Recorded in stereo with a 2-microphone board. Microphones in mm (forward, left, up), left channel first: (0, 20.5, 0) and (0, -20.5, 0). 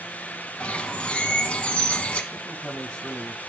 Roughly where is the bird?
Left.